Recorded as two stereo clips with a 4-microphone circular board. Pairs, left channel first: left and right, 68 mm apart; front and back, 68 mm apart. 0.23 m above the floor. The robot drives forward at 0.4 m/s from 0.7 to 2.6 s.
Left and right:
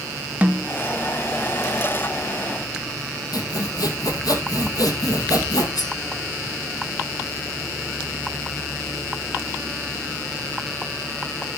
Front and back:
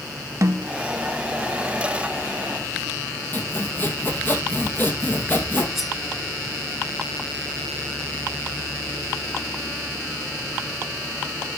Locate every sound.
0.4 s a snare drum: 155° right, 0.6 m
3.3 s sawing: 60° left, 2.0 m
5.8 s cutlery clinking: 90° left, 2.0 m